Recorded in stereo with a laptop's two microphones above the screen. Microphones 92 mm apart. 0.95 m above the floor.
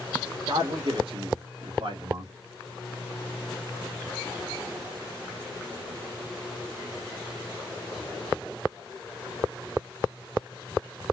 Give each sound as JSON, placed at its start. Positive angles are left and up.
{"t": 0.5, "sound": "a man speaking", "side_deg": -70, "distance_m": 1.7}